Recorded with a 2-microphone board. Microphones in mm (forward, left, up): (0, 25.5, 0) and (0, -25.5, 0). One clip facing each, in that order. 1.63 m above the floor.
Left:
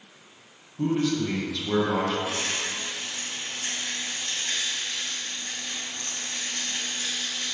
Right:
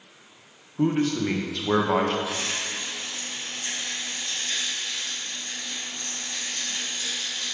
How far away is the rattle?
About 2.5 m.